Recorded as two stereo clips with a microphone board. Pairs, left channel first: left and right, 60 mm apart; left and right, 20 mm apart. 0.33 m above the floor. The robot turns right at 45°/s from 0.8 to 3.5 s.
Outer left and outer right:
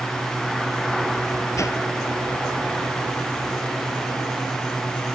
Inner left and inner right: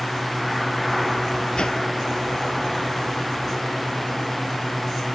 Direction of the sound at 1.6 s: 60° left (ahead or behind).